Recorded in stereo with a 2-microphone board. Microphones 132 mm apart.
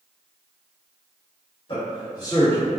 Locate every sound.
1.7 s a man speaking: 45° left (ahead or behind), 1.7 m; by 2.8 s 10° left (ahead or behind), 1.3 m